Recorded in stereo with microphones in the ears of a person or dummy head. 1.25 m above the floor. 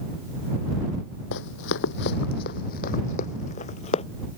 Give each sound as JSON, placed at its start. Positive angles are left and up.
{"t": 1.3, "sound": "running footsteps", "side_deg": 60}